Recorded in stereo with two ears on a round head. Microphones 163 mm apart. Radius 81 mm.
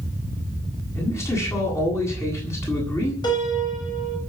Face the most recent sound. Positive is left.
turn(degrees=25)  # may be behind; listen again after turning